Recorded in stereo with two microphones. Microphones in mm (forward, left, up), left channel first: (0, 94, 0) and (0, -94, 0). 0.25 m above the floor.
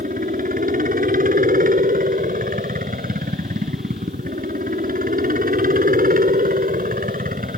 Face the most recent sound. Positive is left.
turn(degrees=-50)  # may be behind; listen again after turning